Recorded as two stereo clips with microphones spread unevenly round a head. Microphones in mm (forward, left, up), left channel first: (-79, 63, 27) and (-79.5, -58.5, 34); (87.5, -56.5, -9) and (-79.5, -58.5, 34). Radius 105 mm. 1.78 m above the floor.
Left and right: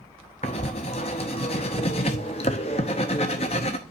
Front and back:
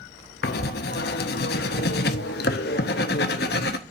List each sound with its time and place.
0.4 s writing: 40° left, 0.7 m